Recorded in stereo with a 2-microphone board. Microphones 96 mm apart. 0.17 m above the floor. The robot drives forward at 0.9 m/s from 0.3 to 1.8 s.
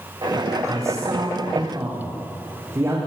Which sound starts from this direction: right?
A man speaking, at 0.6 s.